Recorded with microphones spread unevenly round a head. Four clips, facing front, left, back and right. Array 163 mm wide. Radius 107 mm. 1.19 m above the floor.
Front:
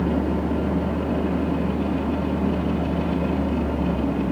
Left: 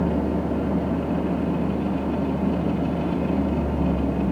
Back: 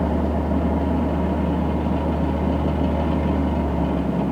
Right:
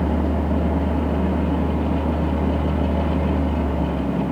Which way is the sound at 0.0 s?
160° left.